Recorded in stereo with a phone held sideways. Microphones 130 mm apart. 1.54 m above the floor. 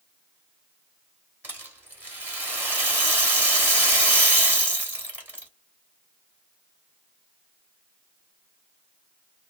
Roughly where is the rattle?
Centre.